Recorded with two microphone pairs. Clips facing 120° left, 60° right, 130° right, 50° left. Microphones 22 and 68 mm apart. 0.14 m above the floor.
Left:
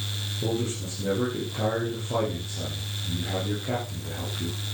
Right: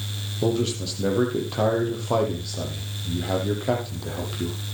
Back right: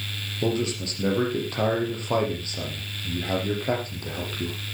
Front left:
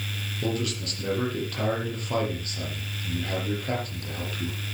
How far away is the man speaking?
About 6 m.